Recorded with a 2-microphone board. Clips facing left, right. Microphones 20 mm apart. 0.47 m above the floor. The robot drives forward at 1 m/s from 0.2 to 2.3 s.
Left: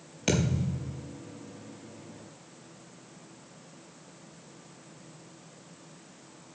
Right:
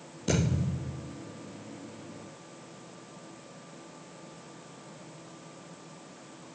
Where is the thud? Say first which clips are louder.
Left 1 dB; 70° left (ahead or behind), 3.5 m; by 1.0 s 80° left, 3.5 m.